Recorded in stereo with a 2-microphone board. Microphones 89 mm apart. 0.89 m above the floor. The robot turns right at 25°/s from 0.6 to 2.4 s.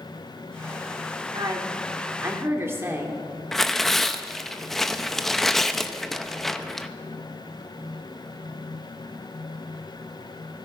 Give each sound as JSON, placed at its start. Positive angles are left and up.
{"t": 1.3, "sound": "a woman speaking", "side_deg": -55, "distance_m": 2.0}
{"t": 3.5, "sound": "tearing paper", "side_deg": 0, "distance_m": 0.6}